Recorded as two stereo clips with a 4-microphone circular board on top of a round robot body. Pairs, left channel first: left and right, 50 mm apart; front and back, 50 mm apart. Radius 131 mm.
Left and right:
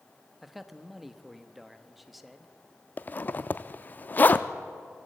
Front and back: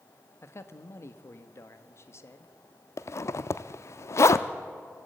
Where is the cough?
I don't hear a cough.